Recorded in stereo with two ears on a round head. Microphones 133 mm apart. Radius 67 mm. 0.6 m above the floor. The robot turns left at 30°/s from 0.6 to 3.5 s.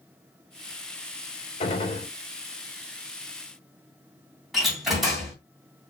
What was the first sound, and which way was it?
A gunshot, 45° left (ahead or behind).